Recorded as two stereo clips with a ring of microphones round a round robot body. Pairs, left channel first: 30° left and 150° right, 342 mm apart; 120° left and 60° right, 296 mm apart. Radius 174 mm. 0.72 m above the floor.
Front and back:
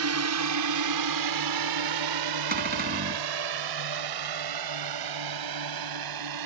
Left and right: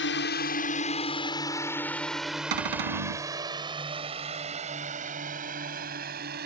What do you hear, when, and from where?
0.0 s a drone: 170° left; by 6.5 s 125° right
2.5 s a cupboard door: 85° right